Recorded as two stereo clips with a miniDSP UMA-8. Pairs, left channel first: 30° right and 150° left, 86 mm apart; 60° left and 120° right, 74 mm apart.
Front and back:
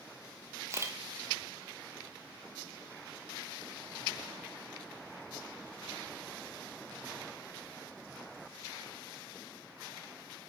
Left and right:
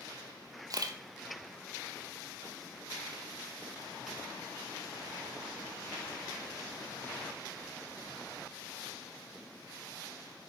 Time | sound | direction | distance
0.7 | a camera shutter | 155° right | 1.0 m